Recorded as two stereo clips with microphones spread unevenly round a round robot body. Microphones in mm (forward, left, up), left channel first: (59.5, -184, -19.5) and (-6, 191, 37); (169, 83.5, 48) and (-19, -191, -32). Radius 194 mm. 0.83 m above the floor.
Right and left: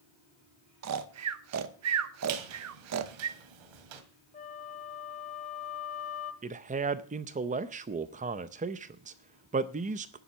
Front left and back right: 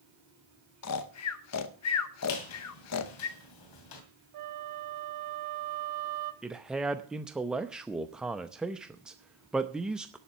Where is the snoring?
80° left, 0.9 m.